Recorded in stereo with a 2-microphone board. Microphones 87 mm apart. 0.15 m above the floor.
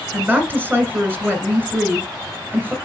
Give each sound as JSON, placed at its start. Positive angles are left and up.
{"t": 0.1, "sound": "a woman speaking", "side_deg": -20, "distance_m": 1.5}